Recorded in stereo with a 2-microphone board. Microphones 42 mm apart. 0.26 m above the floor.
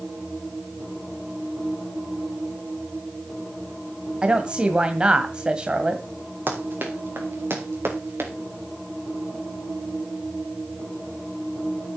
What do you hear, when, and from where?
4.2 s a woman speaking: 25° right (ahead or behind), 1.7 m
6.5 s running footsteps: 55° right (ahead or behind), 5 m; by 8.3 s 80° right, 4 m